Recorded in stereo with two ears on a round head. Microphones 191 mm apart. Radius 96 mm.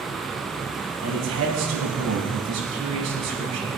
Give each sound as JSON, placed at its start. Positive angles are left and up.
{"t": 1.0, "sound": "a man speaking", "side_deg": -70, "distance_m": 5.5}